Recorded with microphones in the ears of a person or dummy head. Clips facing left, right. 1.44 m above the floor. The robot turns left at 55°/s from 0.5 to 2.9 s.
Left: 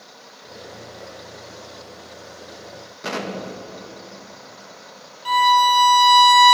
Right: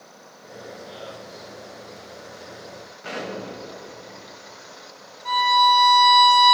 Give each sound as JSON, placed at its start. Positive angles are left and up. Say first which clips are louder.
{"t": 3.0, "sound": "an explosion", "louder": "left 3 dB", "side_deg": 70, "distance_m": 1.1}
{"t": 5.2, "sound": "a violin", "louder": "left 2 dB", "side_deg": 55, "distance_m": 0.9}